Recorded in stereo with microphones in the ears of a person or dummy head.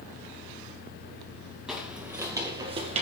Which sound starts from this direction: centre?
Footsteps, at 1.7 s.